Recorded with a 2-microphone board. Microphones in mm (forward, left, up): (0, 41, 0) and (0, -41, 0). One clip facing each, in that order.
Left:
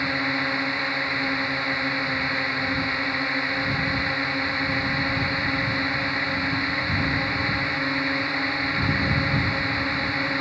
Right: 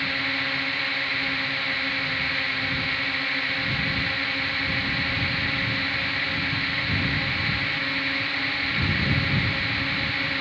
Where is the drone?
20° left (ahead or behind).